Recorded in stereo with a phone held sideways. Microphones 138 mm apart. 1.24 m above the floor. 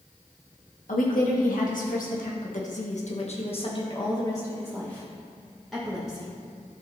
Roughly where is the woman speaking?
Left.